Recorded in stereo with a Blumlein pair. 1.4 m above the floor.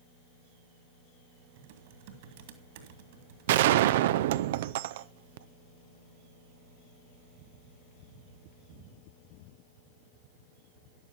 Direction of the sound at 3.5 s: 55° right.